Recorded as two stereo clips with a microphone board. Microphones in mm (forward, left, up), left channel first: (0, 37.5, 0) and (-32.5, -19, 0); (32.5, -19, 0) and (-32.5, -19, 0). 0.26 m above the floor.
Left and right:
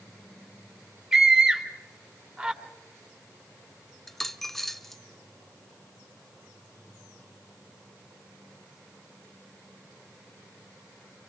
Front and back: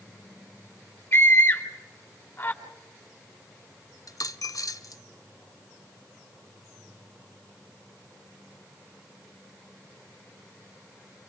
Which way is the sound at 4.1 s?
25° right.